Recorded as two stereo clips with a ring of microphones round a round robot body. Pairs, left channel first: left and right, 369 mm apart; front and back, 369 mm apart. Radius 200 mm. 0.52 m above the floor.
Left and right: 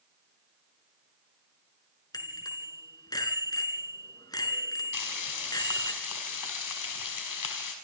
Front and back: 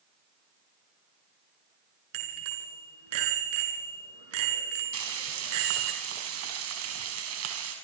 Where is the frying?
125° left, 5 m.